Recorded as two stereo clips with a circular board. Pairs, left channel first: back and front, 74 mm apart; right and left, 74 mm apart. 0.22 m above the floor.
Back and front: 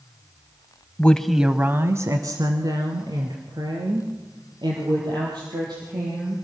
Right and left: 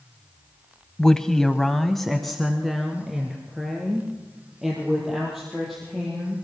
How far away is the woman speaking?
About 1.0 m.